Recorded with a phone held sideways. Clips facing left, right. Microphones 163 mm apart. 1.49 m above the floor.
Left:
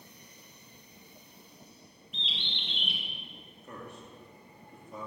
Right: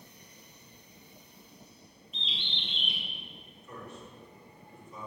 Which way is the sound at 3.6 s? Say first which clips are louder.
Even; 55° left (ahead or behind).